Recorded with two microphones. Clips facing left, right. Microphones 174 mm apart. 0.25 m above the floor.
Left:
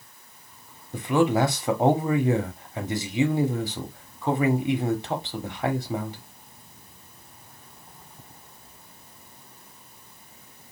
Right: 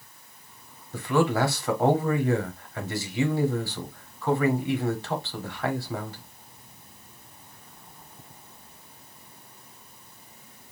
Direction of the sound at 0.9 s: 20° left (ahead or behind).